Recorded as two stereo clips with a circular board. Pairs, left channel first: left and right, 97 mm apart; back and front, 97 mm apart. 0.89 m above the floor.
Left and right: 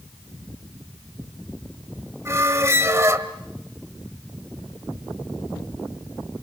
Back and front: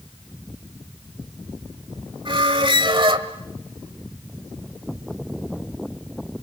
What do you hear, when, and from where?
2.2 s a squeak: 30° right, 1.6 m